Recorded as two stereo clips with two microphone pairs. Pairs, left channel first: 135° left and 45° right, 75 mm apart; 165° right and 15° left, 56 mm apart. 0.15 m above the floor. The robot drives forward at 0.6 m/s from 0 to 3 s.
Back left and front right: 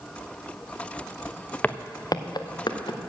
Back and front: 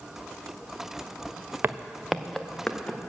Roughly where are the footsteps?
Ahead left.